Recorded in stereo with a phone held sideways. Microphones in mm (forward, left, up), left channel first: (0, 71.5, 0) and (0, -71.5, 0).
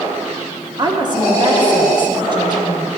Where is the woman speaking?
30° right (ahead or behind), 1.2 m.